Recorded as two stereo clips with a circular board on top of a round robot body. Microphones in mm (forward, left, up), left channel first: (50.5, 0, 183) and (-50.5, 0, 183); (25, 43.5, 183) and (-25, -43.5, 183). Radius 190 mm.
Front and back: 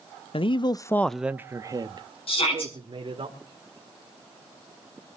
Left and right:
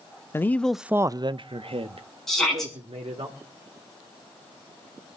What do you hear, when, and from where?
0.3 s a man speaking: straight ahead, 0.8 m; by 3.3 s 145° right, 2 m
2.3 s a shout: 25° right, 8 m